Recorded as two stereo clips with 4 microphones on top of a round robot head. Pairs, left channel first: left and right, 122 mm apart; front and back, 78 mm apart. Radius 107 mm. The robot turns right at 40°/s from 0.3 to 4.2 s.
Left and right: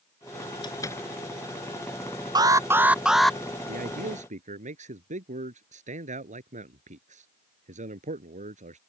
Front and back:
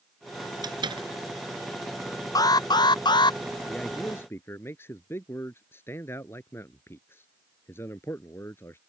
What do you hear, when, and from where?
0.6 s a door slam: 150° left; by 1.1 s 170° left
2.4 s an alarm: 35° right; by 3.4 s 5° left
3.7 s a man speaking: 90° right; by 8.8 s 65° right